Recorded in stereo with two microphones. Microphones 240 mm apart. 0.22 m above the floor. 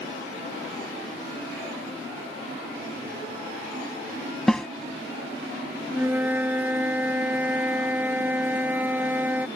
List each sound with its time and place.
4.5 s a snare drum: 5° left (ahead or behind)
5.9 s a flute: 10° right (ahead or behind)